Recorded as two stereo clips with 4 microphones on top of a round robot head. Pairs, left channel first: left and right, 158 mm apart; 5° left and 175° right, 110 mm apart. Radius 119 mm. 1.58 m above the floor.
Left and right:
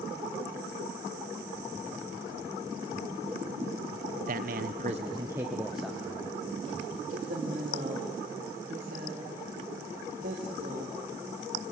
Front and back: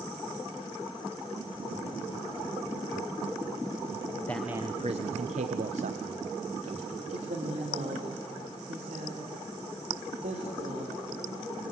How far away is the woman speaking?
About 2.5 m.